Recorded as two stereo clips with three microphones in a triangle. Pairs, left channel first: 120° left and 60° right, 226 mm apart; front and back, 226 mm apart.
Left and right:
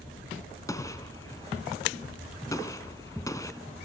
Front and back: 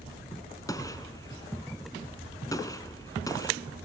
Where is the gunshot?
60° left, 1.3 m.